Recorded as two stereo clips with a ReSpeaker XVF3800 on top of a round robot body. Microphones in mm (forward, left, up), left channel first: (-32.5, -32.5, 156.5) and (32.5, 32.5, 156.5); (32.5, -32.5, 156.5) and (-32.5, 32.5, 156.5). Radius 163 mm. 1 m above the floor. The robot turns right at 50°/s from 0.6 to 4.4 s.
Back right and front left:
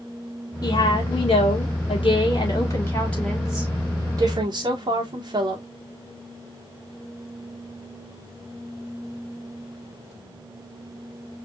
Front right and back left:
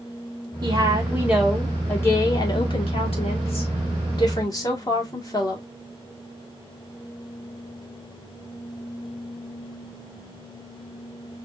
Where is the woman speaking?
175° left, 2 m; by 5.6 s 5° left, 2 m.